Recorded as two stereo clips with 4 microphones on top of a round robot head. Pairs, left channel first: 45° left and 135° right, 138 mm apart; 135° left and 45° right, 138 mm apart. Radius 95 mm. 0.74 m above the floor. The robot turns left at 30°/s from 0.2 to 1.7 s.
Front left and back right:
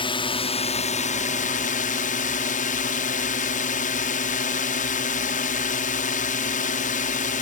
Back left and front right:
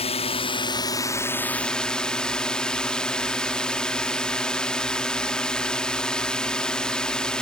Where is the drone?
95° left; by 7.4 s 50° left.